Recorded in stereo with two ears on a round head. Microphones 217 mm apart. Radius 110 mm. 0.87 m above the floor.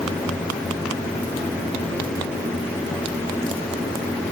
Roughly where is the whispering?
I don't hear whispering.